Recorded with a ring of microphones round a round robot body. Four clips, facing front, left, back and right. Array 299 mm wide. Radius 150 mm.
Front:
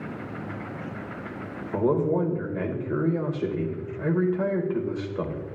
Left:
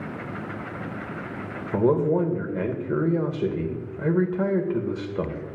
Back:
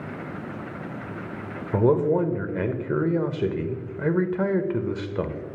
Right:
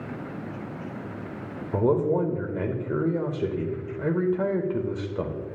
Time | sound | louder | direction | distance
1.7 | a man speaking | left 2 dB, back 3 dB | 170° left | 0.8 m